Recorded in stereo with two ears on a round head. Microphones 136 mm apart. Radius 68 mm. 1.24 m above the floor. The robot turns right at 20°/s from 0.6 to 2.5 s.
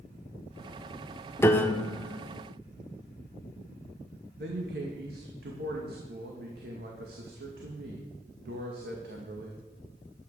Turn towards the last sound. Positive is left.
turn(degrees=-70)  # may be behind; listen again after turning